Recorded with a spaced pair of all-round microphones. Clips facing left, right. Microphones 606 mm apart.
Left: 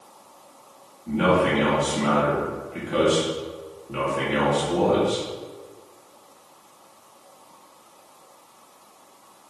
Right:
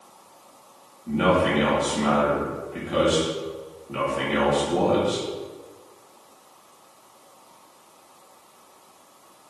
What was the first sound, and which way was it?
A man speaking, 5° right (ahead or behind).